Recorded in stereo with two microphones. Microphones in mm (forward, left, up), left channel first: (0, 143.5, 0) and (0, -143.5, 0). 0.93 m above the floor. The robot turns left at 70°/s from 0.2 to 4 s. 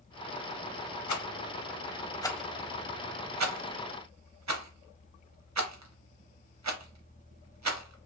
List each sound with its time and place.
1.1 s a rattle: 80° left, 0.5 m; by 8.1 s 70° right (ahead or behind), 0.5 m